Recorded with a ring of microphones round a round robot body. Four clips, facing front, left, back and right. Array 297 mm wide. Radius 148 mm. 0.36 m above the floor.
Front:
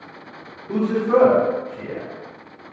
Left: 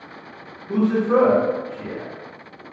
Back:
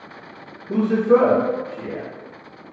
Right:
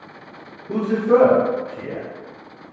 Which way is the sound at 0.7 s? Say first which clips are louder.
Right 1 dB, back 2 dB; 55° right.